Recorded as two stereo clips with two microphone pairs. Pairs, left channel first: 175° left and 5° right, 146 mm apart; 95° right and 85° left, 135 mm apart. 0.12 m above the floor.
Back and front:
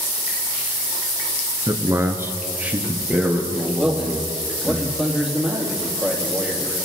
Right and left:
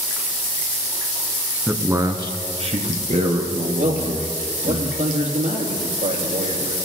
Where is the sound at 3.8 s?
80° left, 3.5 m.